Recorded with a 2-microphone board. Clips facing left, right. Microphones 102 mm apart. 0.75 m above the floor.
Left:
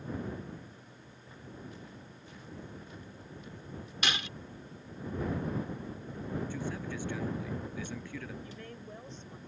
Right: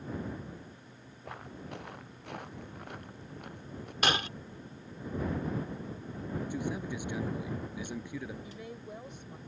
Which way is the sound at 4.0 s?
45° right (ahead or behind).